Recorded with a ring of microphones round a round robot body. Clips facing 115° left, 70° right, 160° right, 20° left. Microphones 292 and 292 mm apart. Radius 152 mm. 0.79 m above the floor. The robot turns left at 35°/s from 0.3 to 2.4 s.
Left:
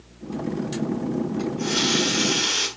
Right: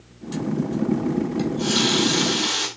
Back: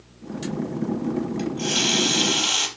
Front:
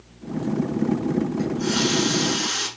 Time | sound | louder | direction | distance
1.4 | a running tap | right 3 dB, front 3 dB | 125° right | 4 m